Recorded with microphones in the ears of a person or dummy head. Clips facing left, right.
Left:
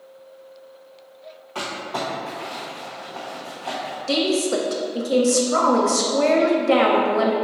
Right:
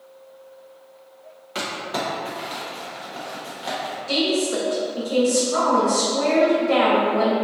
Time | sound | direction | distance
1.6 | crumpling | 25° right (ahead or behind) | 0.9 m
4.1 | a woman speaking | 50° left (ahead or behind) | 0.6 m